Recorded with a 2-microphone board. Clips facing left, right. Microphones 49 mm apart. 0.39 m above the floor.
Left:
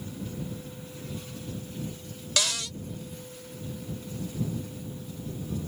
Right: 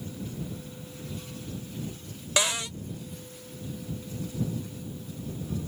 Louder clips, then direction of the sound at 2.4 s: Right 3 dB; 25° right (ahead or behind).